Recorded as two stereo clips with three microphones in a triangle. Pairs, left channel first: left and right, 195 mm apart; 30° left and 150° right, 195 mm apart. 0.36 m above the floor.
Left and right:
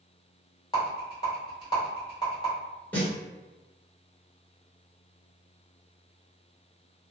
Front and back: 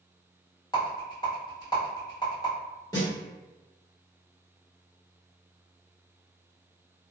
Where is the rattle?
60° left, 1.4 m.